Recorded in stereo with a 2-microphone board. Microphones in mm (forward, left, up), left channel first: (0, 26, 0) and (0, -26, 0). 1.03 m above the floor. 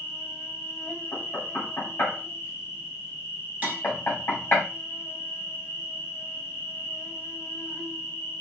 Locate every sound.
0.0 s an insect: 45° left (ahead or behind), 3.5 m
1.1 s knocking: 50° left (ahead or behind), 3.5 m
3.6 s tapping: 30° right (ahead or behind), 1.4 m